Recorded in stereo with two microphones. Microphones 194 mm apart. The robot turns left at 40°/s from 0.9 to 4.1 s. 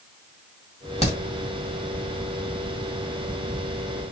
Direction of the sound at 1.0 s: 35° left (ahead or behind).